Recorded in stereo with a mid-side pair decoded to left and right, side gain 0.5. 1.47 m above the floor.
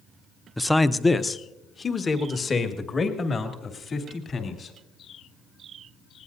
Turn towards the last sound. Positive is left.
turn(degrees=40)